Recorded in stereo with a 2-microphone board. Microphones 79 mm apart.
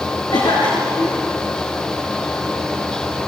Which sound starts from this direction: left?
A cough, at 0.3 s.